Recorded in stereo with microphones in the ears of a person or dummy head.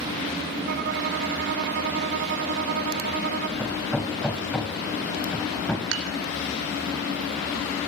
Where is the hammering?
5° left (ahead or behind), 1.9 m.